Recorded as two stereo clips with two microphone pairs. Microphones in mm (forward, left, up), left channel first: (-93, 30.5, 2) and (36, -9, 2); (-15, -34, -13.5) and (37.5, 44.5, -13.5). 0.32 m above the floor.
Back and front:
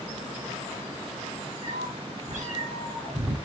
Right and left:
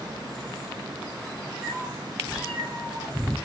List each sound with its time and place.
1.6 s a cat meowing: 20° right, 3.5 m; by 3.4 s 25° right, 4.5 m